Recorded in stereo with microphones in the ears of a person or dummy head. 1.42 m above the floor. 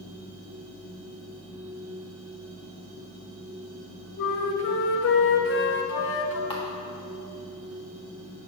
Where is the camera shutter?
20° left (ahead or behind), 0.9 m.